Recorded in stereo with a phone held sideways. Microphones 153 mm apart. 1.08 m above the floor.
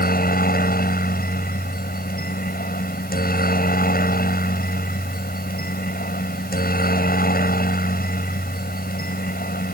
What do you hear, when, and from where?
0.0 s a helicopter: 75° left (ahead or behind)